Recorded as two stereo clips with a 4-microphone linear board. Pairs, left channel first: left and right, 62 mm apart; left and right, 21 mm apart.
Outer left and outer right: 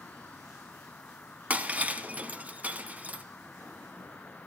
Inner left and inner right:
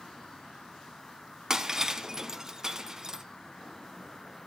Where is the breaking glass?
25° right (ahead or behind), 1.0 m.